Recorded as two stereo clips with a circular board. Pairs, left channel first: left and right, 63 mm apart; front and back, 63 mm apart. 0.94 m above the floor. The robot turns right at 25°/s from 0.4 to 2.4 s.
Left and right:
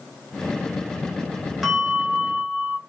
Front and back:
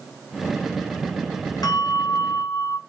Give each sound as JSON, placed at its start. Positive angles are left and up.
{"t": 1.6, "sound": "a bell", "azimuth_deg": -5, "distance_m": 0.8}